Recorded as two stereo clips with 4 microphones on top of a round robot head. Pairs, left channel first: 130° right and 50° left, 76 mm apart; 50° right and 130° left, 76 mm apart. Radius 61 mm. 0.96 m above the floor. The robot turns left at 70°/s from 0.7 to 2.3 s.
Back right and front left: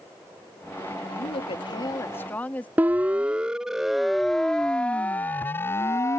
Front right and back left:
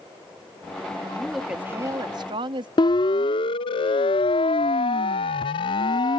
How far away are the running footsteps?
No running footsteps in this recording.